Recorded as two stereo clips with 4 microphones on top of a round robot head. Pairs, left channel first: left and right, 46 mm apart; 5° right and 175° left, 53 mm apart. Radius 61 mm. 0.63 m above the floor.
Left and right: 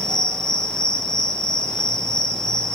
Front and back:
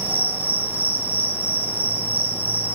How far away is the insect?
About 1.1 m.